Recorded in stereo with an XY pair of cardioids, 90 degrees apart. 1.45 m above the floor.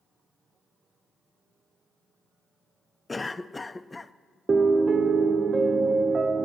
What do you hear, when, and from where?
3.1 s a cough: 20° left, 0.5 m
4.5 s a piano: 40° right, 0.6 m